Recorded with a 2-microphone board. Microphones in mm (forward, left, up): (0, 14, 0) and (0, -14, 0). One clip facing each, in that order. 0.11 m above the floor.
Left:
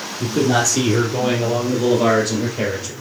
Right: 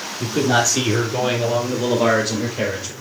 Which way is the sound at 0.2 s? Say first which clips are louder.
Even; 10° right (ahead or behind).